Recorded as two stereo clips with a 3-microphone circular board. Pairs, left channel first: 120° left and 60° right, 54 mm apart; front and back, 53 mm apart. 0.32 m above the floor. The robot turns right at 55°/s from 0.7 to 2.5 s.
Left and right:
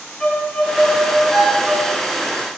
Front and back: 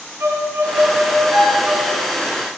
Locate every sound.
0.2 s a violin: 160° right, 1.6 m; by 2.1 s 85° right, 1.6 m